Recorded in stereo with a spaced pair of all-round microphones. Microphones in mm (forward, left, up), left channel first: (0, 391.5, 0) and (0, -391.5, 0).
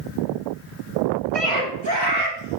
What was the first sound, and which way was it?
A scream, 50° right (ahead or behind).